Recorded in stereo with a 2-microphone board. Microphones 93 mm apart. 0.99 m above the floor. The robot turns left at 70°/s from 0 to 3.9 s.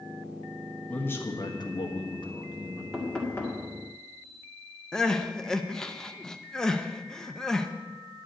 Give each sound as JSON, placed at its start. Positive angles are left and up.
{"t": 0.9, "sound": "a man speaking", "azimuth_deg": 165, "distance_m": 1.4}
{"t": 2.9, "sound": "knocking", "azimuth_deg": -175, "distance_m": 1.8}
{"t": 4.9, "sound": "crying", "side_deg": 5, "distance_m": 0.6}